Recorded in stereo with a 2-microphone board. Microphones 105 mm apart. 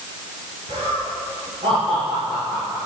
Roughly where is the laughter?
Right.